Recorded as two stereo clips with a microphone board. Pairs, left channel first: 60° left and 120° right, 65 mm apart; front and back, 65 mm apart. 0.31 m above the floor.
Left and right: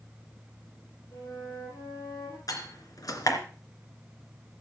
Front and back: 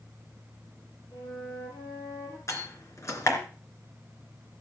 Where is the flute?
25° left, 7.5 m.